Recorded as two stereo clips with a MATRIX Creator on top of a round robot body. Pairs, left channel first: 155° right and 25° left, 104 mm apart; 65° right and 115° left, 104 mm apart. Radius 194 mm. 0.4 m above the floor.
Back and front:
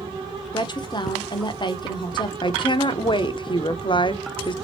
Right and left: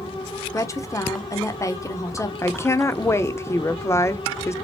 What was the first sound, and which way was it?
A woman speaking, 125° right.